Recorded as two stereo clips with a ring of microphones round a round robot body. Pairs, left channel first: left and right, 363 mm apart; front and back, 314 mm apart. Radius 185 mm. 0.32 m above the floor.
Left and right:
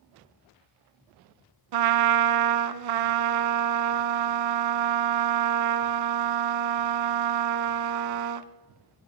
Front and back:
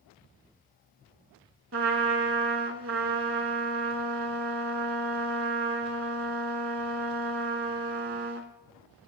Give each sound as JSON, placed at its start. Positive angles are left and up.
{"t": 1.7, "sound": "a trumpet", "azimuth_deg": -120, "distance_m": 0.7}